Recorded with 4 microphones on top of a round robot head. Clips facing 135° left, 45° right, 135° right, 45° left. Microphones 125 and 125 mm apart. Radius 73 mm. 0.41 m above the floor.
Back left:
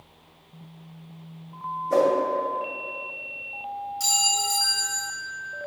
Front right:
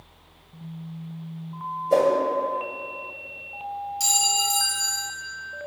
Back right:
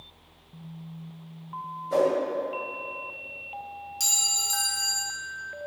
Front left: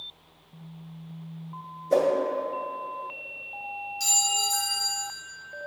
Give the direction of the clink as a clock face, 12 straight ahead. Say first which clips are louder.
Front right 1 dB, front left 7 dB; 4 o'clock.